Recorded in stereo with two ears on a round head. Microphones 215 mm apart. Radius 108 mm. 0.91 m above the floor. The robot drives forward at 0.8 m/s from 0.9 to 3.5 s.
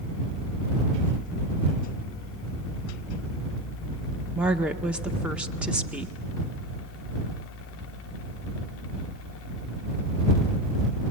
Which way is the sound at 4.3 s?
5° right (ahead or behind).